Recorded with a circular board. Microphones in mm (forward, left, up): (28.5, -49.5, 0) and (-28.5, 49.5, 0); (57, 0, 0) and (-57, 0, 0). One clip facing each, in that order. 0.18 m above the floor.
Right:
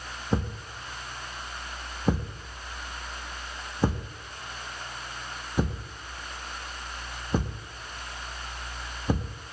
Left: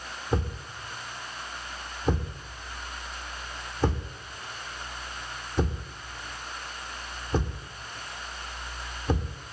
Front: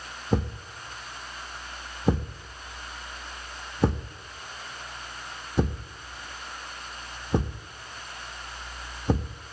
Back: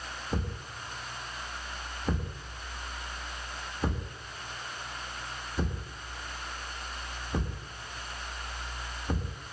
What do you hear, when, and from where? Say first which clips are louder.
0.3 s a thud: right 1 dB, front 9 dB; 20° left, 2 m